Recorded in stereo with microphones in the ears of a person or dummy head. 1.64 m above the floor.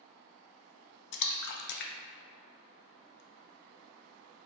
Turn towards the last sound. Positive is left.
turn(degrees=60)  # may be behind; listen again after turning